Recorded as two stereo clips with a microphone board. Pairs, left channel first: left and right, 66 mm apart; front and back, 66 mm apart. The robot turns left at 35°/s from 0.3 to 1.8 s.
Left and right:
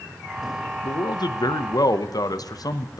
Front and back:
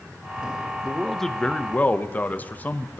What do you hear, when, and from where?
0.8 s a man speaking: 95° left, 0.6 m; by 3.0 s 60° left, 0.6 m